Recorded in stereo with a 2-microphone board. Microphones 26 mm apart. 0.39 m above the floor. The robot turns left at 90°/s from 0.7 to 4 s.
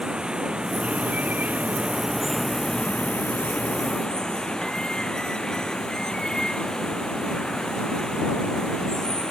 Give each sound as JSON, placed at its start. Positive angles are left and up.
{"t": 0.0, "sound": "running water", "azimuth_deg": -35}